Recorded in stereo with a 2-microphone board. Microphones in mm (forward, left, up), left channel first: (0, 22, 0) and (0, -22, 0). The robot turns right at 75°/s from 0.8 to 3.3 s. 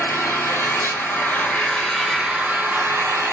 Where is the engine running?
90° left, 3 m; by 3.3 s 80° right, 3 m.